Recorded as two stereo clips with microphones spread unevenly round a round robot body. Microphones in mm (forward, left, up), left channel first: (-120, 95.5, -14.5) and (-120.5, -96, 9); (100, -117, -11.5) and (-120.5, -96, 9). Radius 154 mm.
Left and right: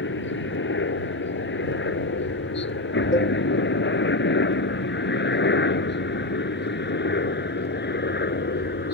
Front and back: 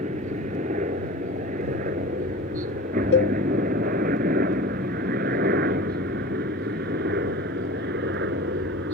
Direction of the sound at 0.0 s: 105° left.